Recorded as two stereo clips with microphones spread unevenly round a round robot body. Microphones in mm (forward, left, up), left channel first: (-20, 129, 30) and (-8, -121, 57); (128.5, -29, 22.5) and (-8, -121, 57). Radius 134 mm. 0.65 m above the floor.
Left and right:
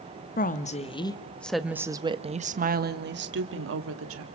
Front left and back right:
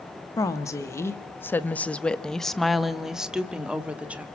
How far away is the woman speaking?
About 1.5 m.